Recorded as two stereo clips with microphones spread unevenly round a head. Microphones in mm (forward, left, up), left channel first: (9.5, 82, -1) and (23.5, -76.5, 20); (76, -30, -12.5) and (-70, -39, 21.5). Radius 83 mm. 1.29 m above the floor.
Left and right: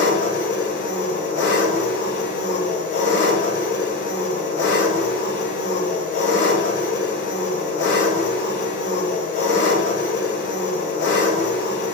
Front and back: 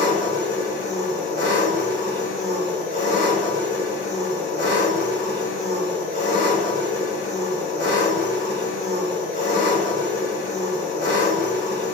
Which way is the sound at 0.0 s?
75° left.